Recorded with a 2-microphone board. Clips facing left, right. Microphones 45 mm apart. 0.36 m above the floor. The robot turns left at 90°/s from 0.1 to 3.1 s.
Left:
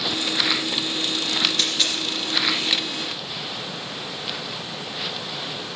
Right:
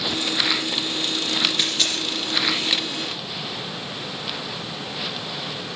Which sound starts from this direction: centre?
A dropped coin, at 1.6 s.